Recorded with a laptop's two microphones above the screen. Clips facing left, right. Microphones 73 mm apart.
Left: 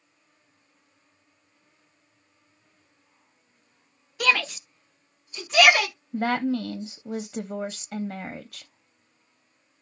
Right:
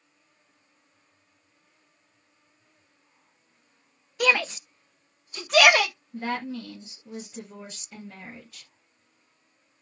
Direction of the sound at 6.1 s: 55° left (ahead or behind).